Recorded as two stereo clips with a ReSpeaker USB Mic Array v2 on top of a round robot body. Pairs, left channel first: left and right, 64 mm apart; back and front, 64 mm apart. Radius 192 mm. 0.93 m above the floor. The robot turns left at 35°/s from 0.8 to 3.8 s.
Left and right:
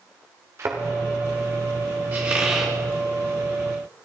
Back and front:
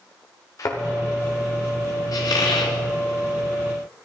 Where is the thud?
140° right, 1.2 m.